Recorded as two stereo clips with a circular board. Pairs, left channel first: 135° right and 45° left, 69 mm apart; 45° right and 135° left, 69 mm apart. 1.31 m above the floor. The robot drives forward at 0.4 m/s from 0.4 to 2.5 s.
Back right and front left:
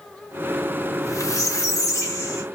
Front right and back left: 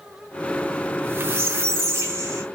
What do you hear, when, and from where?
0.9 s a squeak: 165° right, 0.6 m; by 2.5 s 175° right, 1.2 m